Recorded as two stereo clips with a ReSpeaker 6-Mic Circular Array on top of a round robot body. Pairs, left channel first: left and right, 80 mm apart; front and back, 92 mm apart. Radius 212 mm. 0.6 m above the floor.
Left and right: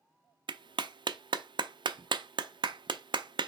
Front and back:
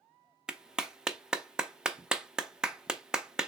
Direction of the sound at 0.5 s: 100° right.